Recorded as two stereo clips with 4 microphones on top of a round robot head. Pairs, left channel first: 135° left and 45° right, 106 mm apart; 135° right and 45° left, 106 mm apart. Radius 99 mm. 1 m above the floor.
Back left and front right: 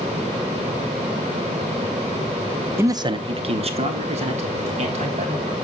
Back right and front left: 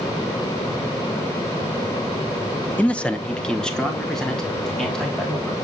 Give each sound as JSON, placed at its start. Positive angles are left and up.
{"t": 2.8, "sound": "a man speaking", "azimuth_deg": -75, "distance_m": 0.7}